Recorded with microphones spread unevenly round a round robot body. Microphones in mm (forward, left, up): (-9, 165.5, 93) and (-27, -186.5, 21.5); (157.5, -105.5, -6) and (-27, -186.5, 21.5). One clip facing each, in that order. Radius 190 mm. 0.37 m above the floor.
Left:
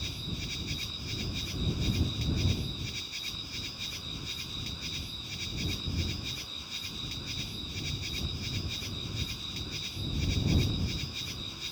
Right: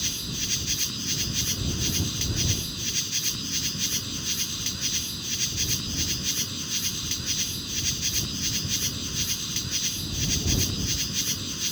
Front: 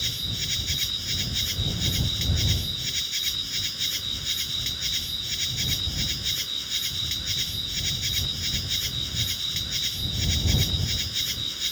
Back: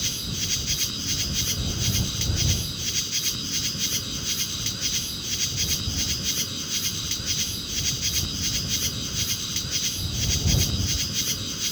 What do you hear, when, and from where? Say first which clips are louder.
0.0 s an insect: right 4 dB, back 4 dB; 120° right